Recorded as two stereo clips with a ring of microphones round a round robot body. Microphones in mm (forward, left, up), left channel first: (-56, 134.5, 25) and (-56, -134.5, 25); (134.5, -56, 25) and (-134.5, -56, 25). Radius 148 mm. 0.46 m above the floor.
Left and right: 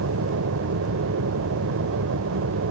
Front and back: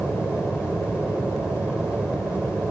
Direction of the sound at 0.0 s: 95° right.